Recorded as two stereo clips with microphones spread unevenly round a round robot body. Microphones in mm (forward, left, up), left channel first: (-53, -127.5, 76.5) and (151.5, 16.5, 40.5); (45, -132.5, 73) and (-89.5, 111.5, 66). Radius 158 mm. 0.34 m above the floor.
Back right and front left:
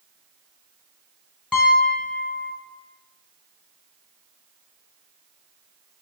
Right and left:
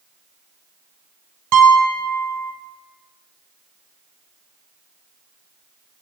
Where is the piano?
125° left, 1.4 m.